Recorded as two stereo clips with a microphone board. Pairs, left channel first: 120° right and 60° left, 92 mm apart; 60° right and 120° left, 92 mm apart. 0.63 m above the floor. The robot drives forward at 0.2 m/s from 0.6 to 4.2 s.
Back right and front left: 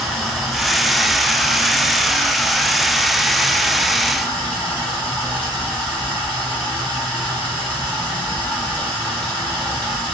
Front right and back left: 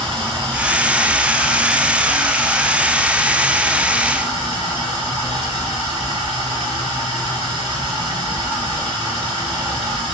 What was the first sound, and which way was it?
Running water, 150° left.